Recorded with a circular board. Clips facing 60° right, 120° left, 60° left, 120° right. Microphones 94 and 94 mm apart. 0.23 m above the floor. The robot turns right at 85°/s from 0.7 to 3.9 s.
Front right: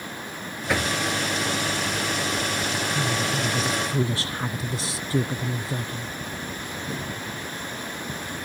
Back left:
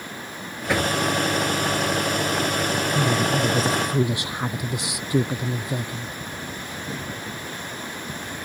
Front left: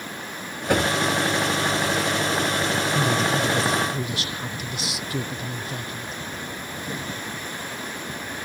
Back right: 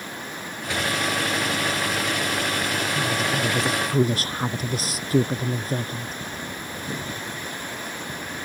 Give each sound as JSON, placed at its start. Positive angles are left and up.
{"t": 0.7, "sound": "knocking", "azimuth_deg": 30}
{"t": 2.9, "sound": "a woman speaking", "azimuth_deg": 110}